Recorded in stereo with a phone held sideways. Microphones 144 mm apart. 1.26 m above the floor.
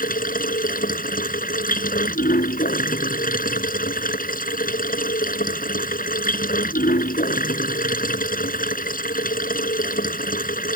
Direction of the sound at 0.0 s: 80° left.